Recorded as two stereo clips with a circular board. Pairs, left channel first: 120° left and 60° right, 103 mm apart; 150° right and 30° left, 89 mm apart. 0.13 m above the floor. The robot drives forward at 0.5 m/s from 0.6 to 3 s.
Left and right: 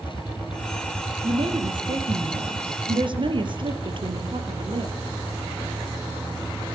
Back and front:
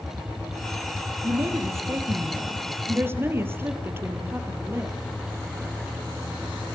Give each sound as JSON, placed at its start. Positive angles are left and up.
{"t": 1.2, "sound": "a woman speaking", "azimuth_deg": -25, "distance_m": 4.0}